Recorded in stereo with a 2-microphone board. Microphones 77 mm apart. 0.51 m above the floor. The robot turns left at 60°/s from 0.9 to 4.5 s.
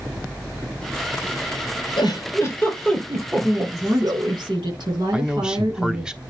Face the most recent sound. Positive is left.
turn(degrees=-10)  # may be behind; listen again after turning